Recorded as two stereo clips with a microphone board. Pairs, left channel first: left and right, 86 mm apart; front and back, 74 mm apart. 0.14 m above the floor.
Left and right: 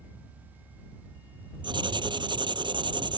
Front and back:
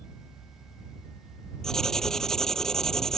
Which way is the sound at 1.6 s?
85° right.